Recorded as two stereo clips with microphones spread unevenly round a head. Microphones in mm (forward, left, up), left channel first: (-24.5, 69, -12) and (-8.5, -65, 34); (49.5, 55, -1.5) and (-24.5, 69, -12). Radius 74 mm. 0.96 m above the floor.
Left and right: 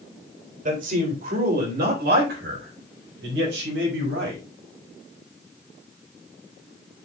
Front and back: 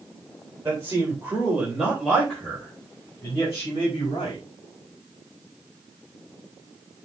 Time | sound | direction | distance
0.7 | a man speaking | 120° right | 3.5 m